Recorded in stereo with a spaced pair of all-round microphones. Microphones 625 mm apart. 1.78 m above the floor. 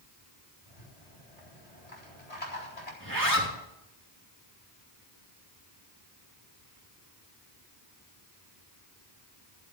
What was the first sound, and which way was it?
A rattle, 70° left (ahead or behind).